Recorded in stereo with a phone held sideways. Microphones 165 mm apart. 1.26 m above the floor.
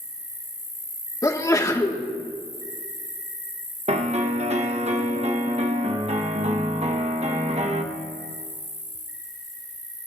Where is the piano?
40° right (ahead or behind), 1.2 m.